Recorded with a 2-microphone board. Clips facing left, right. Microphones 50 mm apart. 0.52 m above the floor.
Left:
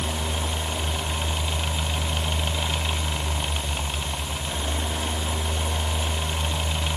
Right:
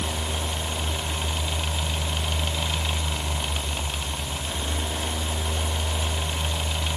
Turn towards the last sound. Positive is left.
No sound to turn to.